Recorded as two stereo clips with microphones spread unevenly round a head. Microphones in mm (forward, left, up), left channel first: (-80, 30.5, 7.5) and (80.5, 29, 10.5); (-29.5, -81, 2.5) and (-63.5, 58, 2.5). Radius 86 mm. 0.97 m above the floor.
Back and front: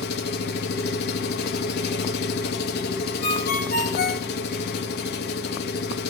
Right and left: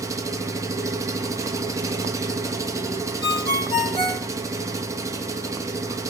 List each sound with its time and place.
0.0 s an engine running: 170° left, 1.1 m
3.2 s a ringtone: 130° right, 1.7 m